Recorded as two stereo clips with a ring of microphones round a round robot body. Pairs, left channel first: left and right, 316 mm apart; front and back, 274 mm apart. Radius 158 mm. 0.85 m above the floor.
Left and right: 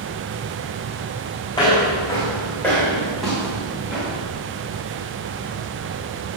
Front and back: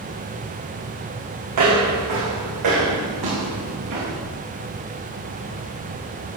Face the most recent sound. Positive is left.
turn(degrees=-175)